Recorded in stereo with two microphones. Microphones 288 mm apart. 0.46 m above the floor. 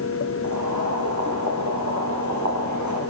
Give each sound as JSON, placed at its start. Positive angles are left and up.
{"t": 0.4, "sound": "boiling", "side_deg": -80, "distance_m": 9.0}